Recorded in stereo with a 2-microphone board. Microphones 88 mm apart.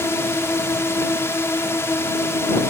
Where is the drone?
30° left (ahead or behind).